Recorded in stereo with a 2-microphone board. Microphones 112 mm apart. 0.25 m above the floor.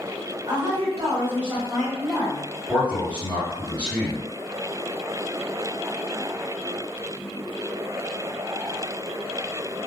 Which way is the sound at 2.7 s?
15° left (ahead or behind).